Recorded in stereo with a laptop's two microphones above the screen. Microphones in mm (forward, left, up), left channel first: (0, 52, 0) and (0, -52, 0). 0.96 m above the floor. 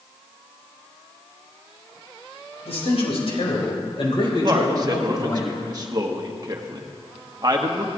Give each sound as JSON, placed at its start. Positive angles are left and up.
{"t": 2.6, "sound": "a man speaking", "side_deg": 80, "distance_m": 4.5}
{"t": 4.4, "sound": "a man speaking", "side_deg": -40, "distance_m": 1.1}